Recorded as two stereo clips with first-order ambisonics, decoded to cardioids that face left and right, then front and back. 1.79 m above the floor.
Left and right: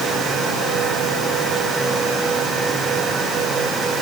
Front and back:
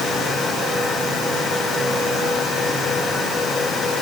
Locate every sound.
Only background noise.